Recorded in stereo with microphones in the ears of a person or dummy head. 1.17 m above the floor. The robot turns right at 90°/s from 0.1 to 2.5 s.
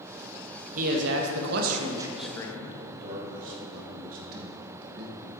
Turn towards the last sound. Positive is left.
turn(degrees=-50)  # may be behind; listen again after turning